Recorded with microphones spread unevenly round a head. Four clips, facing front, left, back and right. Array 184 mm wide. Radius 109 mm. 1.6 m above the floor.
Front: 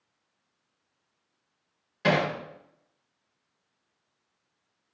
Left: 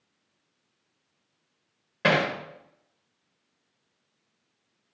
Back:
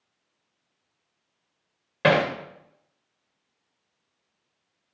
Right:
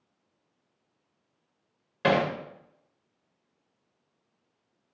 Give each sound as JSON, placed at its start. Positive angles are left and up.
{"t": 2.0, "sound": "hammering", "azimuth_deg": 160, "distance_m": 1.8}